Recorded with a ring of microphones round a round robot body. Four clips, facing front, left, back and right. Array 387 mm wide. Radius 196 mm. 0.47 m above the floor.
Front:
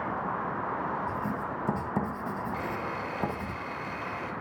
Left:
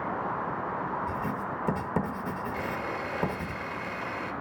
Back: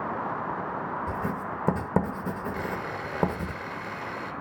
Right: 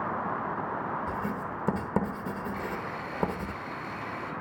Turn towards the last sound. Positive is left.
turn(degrees=160)